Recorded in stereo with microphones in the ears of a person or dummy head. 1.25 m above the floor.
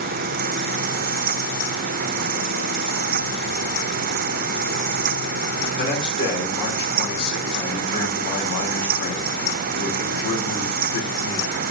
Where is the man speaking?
70° left (ahead or behind), 3 m.